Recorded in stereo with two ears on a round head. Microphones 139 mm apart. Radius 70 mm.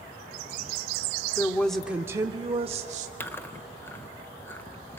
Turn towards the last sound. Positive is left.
turn(degrees=15)  # may be behind; listen again after turning